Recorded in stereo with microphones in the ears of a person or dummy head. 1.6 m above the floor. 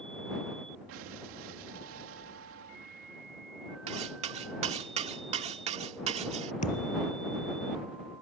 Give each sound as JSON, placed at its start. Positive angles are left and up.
{"t": 0.9, "sound": "an explosion", "side_deg": -85}
{"t": 3.9, "sound": "cutlery clinking", "side_deg": -40}
{"t": 6.6, "sound": "a thud", "side_deg": 40}